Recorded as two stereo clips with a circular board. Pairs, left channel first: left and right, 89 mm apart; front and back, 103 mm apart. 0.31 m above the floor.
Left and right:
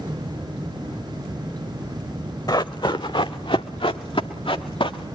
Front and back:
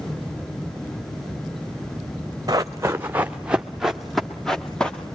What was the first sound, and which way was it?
Running footsteps, 130° left.